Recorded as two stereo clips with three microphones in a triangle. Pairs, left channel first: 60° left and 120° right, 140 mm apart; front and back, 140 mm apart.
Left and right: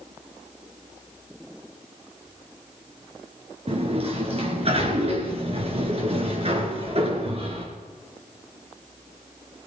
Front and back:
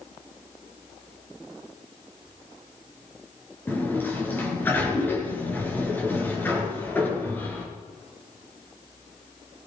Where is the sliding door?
75° right, 3.5 m.